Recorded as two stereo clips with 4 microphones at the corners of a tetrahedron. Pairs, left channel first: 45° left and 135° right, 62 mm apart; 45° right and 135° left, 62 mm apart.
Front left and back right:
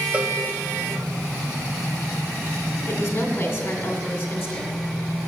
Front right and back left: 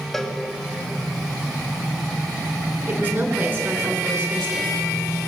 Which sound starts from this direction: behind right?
A cowbell, at 0.1 s.